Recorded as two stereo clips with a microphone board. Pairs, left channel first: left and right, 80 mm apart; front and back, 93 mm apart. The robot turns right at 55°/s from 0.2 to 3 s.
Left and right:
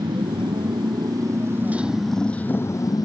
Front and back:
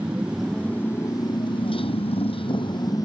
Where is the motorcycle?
100° right; by 3.0 s 50° left.